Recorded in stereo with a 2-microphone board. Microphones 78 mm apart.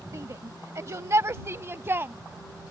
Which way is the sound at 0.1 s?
40° right (ahead or behind).